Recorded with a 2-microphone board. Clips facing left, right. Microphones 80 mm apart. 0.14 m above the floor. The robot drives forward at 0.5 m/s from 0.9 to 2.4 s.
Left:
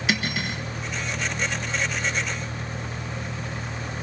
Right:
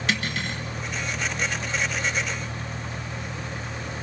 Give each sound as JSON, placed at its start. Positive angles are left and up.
{"t": 0.1, "sound": "cutlery clinking", "side_deg": 5, "distance_m": 1.1}